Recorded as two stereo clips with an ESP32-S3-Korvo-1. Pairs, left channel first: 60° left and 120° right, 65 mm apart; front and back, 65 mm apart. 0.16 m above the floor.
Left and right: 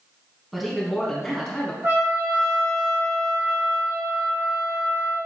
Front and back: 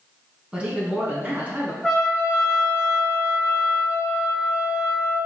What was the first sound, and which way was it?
A man speaking, 155° left.